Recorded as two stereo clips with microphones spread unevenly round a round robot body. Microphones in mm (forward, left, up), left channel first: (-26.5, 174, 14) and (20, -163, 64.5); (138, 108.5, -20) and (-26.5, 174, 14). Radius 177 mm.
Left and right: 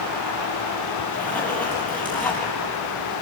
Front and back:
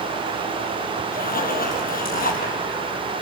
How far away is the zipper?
About 4 m.